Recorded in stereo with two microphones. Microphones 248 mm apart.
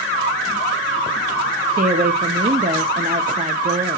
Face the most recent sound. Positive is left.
turn(degrees=-35)  # may be behind; listen again after turning